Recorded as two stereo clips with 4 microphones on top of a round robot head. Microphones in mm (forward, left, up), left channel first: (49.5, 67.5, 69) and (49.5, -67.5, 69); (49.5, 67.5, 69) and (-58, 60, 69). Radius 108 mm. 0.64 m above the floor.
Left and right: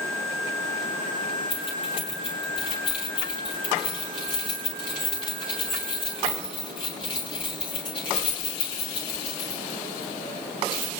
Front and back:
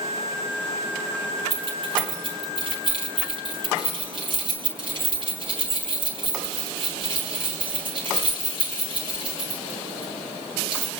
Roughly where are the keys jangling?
Behind left.